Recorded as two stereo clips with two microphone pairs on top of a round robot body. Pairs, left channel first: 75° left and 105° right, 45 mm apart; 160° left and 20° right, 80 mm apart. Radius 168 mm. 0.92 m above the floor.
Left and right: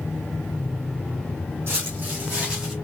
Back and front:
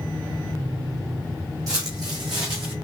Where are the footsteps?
65° right, 2.5 m; by 2.7 s 35° right, 2.5 m.